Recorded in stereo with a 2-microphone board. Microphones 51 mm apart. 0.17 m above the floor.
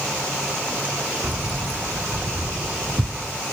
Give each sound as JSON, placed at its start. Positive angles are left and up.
{"t": 1.2, "sound": "keys jangling", "side_deg": -40, "distance_m": 1.1}